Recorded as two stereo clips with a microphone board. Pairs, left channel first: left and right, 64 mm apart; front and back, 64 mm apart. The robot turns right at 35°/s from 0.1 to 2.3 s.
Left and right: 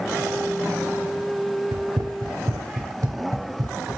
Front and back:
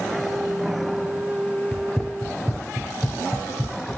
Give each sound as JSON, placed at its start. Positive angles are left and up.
{"t": 1.7, "sound": "running footsteps", "azimuth_deg": -90, "distance_m": 0.7}